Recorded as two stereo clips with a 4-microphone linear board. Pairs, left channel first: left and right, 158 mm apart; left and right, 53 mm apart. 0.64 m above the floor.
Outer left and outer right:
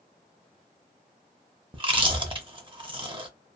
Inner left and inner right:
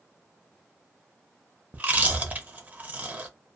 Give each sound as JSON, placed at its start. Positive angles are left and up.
{"t": 1.7, "sound": "chewing", "side_deg": -35, "distance_m": 0.6}